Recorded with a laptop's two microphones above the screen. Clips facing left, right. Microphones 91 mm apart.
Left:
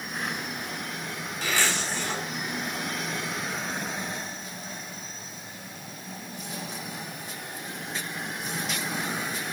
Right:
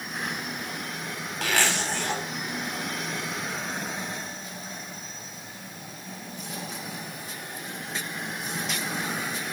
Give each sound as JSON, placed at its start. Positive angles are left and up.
{"t": 1.4, "sound": "a zipper", "side_deg": -75, "distance_m": 4.0}